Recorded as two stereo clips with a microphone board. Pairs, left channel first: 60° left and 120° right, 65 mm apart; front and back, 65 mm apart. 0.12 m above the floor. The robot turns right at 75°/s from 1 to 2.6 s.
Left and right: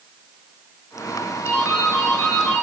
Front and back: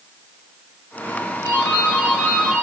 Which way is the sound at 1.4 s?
15° left.